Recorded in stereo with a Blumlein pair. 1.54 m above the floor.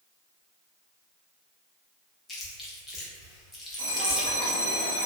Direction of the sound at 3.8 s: 65° right.